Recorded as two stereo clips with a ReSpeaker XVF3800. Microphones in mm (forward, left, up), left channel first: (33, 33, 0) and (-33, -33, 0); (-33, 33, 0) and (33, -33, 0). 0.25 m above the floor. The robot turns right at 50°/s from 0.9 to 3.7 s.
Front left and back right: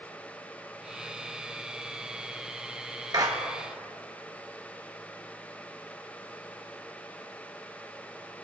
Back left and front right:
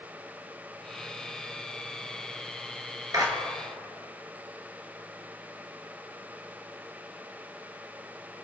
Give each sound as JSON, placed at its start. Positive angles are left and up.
{"t": 3.1, "sound": "a clap", "azimuth_deg": -95, "distance_m": 2.5}